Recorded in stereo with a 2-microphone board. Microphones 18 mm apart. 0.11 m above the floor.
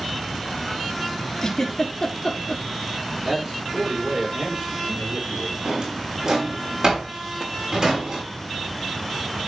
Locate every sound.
1.4 s a giggle: 35° left (ahead or behind), 1.8 m
3.2 s a man speaking: 60° right (ahead or behind), 5.5 m
5.7 s a drawer: 55° right (ahead or behind), 4.5 m